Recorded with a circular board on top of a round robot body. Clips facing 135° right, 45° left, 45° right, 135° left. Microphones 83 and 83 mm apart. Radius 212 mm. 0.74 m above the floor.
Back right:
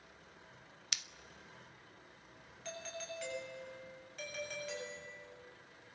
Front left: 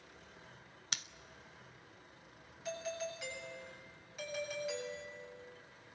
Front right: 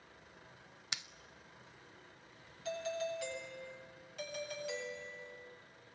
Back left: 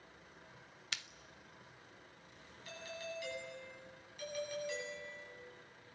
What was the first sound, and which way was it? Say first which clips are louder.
Scissors: front left 2 dB, even; 20° left.